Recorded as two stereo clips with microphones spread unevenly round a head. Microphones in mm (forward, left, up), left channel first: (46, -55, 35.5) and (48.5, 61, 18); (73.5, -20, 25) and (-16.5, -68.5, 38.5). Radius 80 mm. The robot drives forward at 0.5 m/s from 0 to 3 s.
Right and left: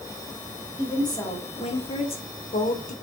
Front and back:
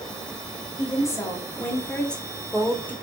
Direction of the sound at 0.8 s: 30° right.